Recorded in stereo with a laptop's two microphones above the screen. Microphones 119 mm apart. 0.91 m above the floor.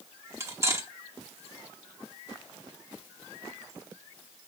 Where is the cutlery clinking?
20° right (ahead or behind), 0.9 m.